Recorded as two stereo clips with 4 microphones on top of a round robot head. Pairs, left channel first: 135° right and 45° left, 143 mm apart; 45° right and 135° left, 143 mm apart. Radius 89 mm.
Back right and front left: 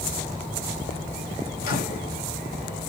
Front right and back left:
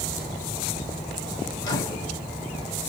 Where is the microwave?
110° right, 1.1 m.